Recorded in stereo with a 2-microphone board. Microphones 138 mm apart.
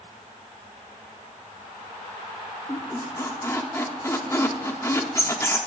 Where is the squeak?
20° left (ahead or behind), 1.0 m.